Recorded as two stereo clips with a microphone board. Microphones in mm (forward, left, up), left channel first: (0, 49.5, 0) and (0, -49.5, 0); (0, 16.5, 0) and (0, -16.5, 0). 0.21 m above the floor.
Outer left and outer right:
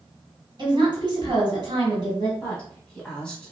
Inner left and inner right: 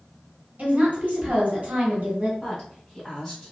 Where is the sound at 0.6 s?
40° right (ahead or behind), 1.7 m.